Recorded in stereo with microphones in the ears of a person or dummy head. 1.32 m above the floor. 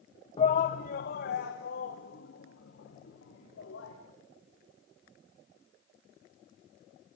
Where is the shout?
30° left (ahead or behind), 0.8 m; by 4.0 s 70° left (ahead or behind), 4.5 m.